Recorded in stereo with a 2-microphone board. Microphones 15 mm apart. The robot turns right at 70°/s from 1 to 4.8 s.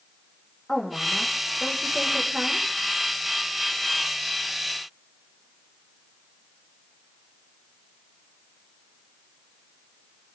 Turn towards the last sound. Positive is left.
turn(degrees=55)